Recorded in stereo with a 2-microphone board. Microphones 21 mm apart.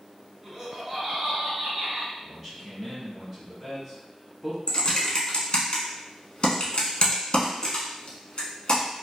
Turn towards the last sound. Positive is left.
turn(degrees=50)  # may be behind; listen again after turning